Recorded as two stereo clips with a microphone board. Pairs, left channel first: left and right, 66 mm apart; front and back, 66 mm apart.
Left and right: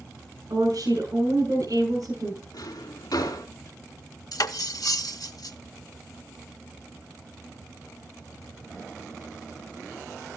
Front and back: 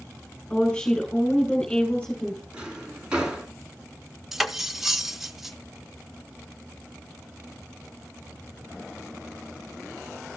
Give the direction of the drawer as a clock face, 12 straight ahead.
9 o'clock.